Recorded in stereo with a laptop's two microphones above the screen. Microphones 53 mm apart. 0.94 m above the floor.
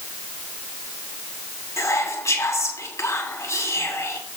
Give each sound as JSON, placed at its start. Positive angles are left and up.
{"t": 1.8, "sound": "whispering", "side_deg": 75, "distance_m": 2.5}